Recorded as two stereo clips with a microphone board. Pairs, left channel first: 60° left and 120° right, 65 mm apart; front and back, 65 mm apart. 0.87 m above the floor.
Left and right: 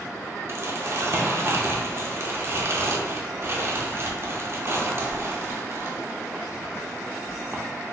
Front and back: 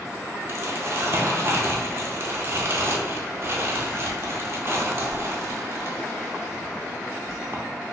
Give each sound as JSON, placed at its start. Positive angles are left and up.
{"t": 0.5, "sound": "crumpling", "azimuth_deg": -145, "distance_m": 0.6}